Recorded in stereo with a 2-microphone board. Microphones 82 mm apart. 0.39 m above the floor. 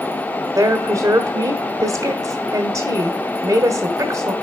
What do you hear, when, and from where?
0.6 s a woman speaking: 45° right (ahead or behind), 1.5 m